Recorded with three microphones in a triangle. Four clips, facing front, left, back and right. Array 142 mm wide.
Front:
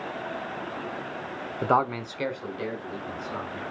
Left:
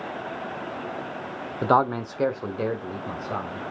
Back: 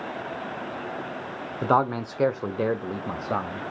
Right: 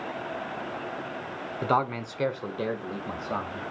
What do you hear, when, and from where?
1.6 s a man speaking: 85° left, 0.9 m; by 3.7 s straight behind, 1.9 m